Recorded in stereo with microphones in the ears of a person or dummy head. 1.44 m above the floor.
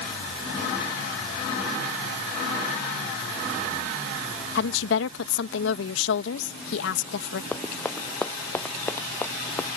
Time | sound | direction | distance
4.5 | a woman speaking | 80° left | ?
7.5 | running footsteps | 10° left (ahead or behind) | ?